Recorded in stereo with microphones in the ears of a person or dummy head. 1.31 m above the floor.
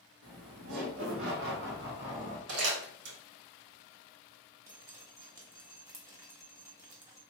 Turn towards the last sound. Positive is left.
turn(degrees=-25)  # may be behind; listen again after turning